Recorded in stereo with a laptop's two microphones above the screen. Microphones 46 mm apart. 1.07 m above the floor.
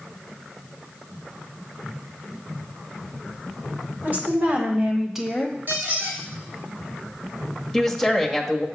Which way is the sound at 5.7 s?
50° right (ahead or behind).